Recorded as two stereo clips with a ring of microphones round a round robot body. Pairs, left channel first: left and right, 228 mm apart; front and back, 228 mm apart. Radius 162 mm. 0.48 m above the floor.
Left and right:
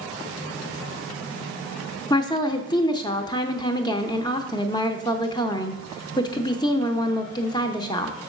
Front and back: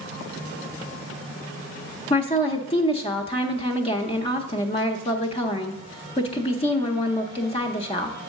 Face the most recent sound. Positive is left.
turn(degrees=35)